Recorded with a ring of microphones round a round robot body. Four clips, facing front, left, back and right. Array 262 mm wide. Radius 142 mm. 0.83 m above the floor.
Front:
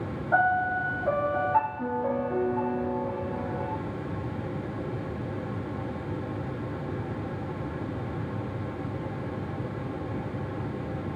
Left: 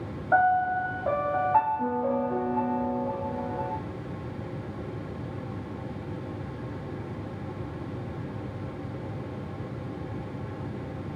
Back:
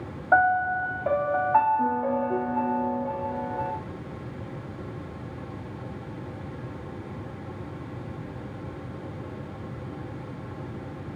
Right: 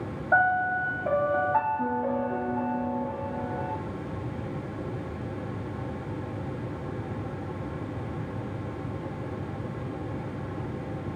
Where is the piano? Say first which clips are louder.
Left 1 dB, back 3 dB; 170° left, 0.7 m.